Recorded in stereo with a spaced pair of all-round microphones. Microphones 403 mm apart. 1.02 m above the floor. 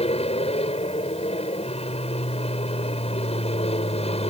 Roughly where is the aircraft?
Centre.